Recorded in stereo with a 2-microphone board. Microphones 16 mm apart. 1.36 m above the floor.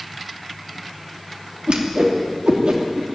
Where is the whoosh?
80° right, 3 m.